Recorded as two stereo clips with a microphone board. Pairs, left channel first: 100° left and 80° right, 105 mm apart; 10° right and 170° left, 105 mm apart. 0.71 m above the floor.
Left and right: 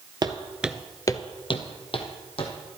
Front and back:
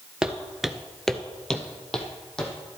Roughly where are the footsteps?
Right.